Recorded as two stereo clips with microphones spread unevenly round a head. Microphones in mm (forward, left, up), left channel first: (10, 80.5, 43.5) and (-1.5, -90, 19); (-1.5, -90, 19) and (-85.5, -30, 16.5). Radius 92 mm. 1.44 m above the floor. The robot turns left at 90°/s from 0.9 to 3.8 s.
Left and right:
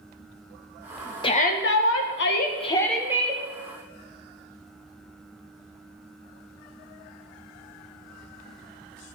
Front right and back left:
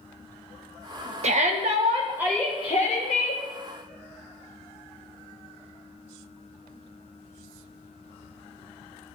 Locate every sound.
1.2 s a shout: 150° left, 1.5 m; by 3.4 s 45° right, 1.5 m